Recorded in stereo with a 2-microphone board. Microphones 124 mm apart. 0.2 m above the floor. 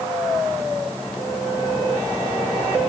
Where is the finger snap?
I don't hear a finger snap.